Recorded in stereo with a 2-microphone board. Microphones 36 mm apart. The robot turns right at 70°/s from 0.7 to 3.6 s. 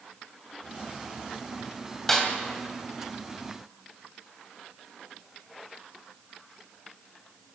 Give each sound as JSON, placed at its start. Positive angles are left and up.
{"t": 2.1, "sound": "a snare drum", "side_deg": 10, "distance_m": 2.5}